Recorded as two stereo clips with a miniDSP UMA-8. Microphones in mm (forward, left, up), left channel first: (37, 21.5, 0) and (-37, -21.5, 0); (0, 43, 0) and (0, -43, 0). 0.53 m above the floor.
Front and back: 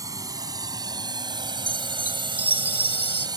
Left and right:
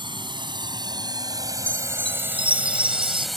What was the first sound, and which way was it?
A drone, 105° right.